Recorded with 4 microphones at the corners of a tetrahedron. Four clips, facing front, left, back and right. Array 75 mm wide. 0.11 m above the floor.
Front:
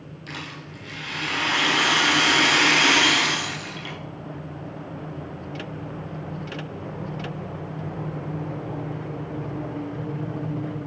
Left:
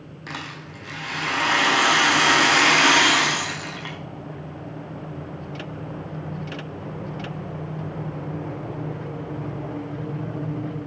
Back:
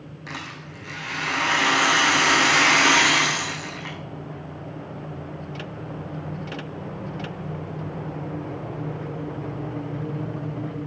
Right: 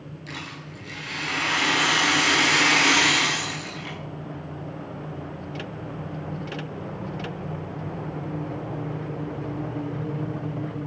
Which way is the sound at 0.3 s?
110° left.